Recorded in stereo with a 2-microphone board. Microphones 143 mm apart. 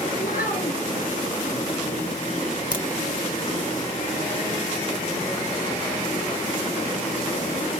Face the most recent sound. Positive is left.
turn(degrees=65)  # may be behind; listen again after turning